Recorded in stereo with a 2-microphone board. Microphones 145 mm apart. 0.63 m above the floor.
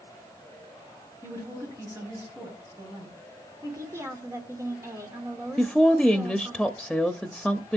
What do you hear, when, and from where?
1.2 s a woman speaking: 25° right (ahead or behind), 9 m
3.6 s a woman speaking: 20° right (ahead or behind), 2 m
5.6 s a woman speaking: centre (ahead or behind), 0.6 m